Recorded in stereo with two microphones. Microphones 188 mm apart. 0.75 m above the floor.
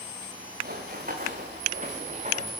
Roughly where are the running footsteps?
Right.